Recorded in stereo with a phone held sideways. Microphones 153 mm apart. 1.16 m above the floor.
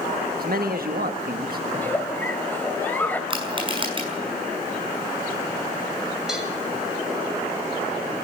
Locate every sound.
0.4 s a man speaking: 75° right (ahead or behind), 1.5 m
1.7 s a giggle: 10° left (ahead or behind), 2.0 m
3.3 s crushing: 35° right (ahead or behind), 6 m
6.3 s a cowbell: centre (ahead or behind), 6 m